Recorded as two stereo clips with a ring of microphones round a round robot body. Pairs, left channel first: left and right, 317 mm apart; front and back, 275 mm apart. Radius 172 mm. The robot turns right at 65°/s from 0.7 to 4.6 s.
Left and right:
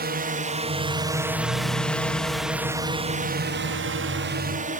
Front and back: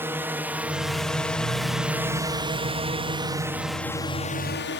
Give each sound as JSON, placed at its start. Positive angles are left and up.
{"t": 0.0, "sound": "a drone", "azimuth_deg": -105}